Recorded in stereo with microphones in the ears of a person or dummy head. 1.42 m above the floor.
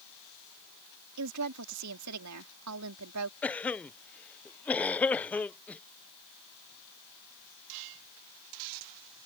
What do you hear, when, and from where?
1.2 s a woman speaking: 90° right
3.4 s a cough: 10° left (ahead or behind)